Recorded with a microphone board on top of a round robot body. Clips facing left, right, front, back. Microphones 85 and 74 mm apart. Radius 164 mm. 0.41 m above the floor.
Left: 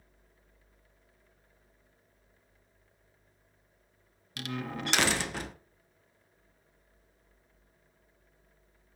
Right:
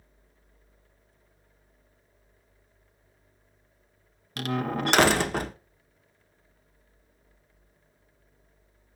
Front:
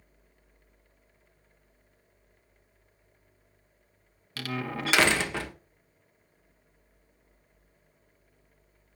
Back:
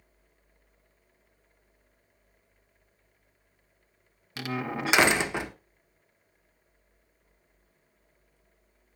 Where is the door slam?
115° right, 1.4 m.